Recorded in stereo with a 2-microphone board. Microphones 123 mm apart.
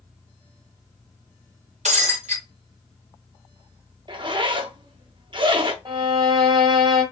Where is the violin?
40° right (ahead or behind), 1.6 m.